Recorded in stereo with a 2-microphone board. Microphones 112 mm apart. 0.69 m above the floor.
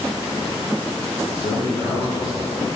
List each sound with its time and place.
1.3 s a man speaking: 45° left (ahead or behind), 2.5 m